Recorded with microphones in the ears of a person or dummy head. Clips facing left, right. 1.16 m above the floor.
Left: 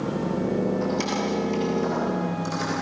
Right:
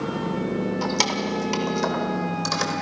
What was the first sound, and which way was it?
Keys jangling, 85° right.